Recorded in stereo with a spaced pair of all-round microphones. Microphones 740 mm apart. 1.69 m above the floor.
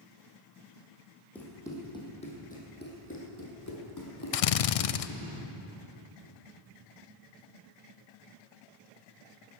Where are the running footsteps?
Centre (ahead or behind), 3.5 m; by 5.2 s 40° left (ahead or behind), 3 m.